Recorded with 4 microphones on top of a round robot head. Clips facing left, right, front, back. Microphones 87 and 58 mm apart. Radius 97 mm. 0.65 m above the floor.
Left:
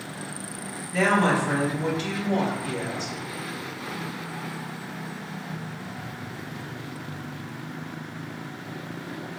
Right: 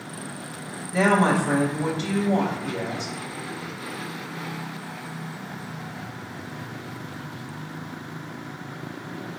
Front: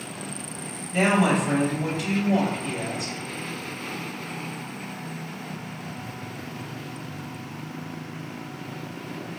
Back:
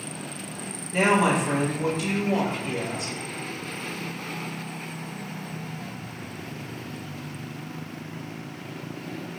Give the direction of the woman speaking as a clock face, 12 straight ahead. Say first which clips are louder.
Right 2 dB, even; 3 o'clock.